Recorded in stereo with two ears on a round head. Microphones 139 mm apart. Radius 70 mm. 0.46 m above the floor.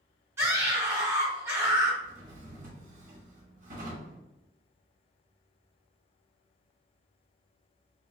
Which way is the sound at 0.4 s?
15° right (ahead or behind).